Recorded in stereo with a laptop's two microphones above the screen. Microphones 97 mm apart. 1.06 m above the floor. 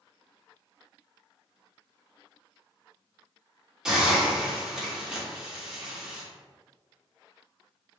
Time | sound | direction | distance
3.9 | a hiss | 5° right (ahead or behind) | 1.3 m